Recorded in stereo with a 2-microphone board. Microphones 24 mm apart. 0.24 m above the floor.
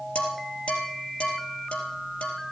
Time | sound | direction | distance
0.1 | dishes clattering | 70° left (ahead or behind) | 4 m